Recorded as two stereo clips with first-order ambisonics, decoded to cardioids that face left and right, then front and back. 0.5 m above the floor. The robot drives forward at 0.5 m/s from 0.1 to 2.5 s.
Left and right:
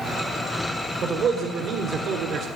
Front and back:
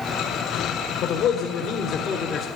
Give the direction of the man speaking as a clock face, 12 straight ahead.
1 o'clock.